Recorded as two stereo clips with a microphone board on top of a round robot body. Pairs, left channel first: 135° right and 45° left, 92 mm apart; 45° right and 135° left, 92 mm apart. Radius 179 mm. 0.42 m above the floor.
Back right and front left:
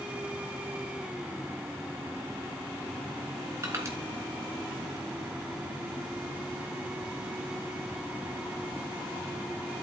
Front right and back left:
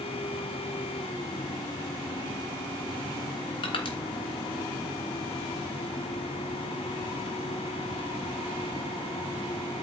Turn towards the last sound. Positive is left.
turn(degrees=-15)